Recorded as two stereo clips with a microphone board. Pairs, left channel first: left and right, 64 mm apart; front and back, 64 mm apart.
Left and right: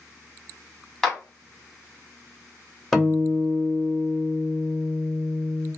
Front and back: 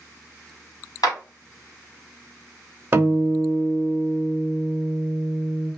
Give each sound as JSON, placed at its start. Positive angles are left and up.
{"t": 1.0, "sound": "a clap", "azimuth_deg": 5, "distance_m": 1.6}
{"t": 2.9, "sound": "a guitar", "azimuth_deg": 165, "distance_m": 0.9}